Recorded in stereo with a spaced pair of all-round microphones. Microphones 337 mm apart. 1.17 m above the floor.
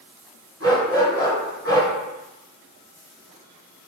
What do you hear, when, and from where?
0.6 s a dog barking: 45° right (ahead or behind), 1.7 m